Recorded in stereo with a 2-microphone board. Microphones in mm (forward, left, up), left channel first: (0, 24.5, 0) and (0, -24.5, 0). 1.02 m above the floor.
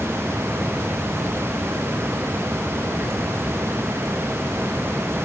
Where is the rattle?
No rattle in this recording.